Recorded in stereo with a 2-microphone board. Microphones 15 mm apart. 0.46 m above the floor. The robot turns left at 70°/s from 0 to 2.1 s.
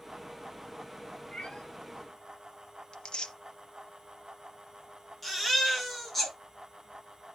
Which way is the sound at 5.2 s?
20° left (ahead or behind).